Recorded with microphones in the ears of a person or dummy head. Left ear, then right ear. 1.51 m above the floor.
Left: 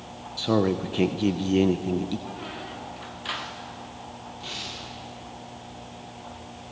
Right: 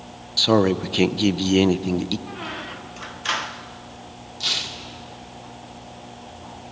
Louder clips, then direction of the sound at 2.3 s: Right 4 dB; 20° right (ahead or behind).